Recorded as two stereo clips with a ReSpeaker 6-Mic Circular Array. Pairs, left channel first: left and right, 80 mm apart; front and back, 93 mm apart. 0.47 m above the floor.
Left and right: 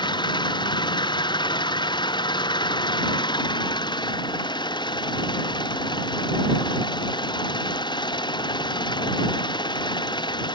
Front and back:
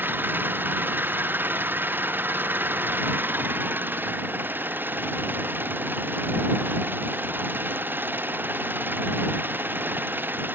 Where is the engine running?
110° left.